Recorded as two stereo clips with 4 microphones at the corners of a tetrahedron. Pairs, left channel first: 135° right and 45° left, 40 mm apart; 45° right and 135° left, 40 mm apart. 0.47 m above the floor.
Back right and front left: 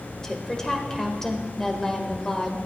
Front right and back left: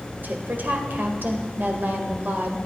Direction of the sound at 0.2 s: 150° left.